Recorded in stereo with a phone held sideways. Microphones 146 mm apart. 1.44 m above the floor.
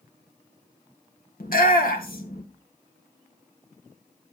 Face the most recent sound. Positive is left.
turn(degrees=80)